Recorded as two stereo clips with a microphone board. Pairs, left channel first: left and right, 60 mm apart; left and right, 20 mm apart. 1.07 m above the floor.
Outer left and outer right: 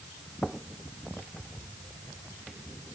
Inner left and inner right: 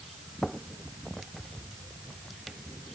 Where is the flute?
No flute in this recording.